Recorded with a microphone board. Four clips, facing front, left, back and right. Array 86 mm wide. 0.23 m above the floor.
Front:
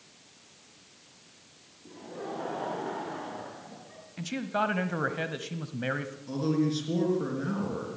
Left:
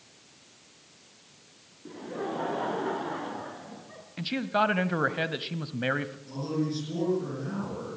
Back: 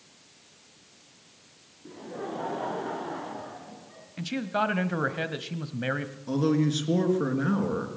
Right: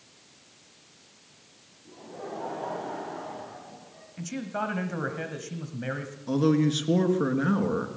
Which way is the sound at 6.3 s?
120° right.